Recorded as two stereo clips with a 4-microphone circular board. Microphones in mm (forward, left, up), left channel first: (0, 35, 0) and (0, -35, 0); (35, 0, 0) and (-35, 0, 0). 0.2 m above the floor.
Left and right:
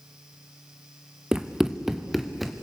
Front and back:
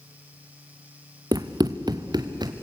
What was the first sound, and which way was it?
Running footsteps, 170° right.